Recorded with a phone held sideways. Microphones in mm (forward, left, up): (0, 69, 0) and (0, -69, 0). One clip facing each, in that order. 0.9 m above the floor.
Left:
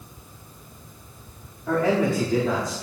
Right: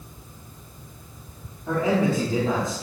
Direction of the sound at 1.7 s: 10° right (ahead or behind).